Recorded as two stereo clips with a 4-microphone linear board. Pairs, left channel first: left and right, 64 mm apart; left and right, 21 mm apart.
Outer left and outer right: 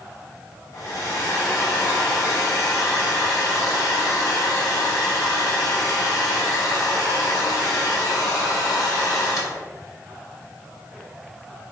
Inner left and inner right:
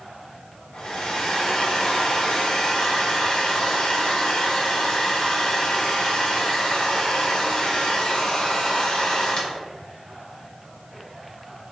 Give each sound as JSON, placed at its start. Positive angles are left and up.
{"t": 0.7, "sound": "a hair dryer", "side_deg": 65, "distance_m": 1.2}